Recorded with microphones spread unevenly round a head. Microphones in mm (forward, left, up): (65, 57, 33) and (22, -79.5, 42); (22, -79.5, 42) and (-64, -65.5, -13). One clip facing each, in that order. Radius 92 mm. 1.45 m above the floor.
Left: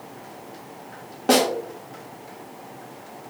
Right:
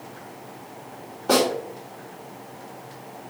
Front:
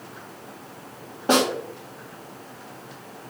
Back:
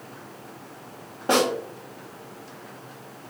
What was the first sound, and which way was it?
A snare drum, 60° left.